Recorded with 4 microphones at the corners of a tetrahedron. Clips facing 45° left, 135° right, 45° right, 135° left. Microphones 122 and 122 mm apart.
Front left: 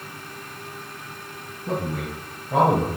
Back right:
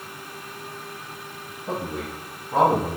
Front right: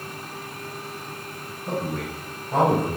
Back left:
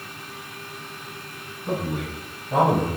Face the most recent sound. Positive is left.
turn(degrees=70)